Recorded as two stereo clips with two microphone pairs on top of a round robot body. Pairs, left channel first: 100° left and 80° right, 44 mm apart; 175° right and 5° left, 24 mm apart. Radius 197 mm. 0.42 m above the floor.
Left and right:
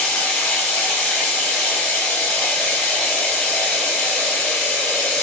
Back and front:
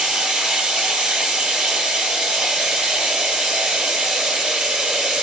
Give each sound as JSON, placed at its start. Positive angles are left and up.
{"t": 0.0, "sound": "running water", "azimuth_deg": 40, "distance_m": 1.9}